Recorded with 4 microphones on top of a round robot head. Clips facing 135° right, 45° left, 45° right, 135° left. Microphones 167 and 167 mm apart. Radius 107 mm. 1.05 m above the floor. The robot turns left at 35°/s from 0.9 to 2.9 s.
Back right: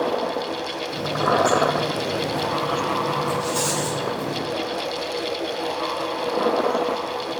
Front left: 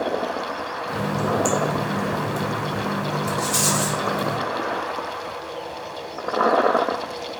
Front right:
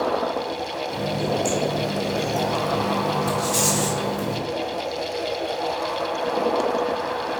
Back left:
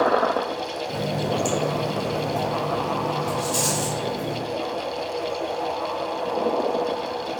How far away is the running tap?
About 2.5 m.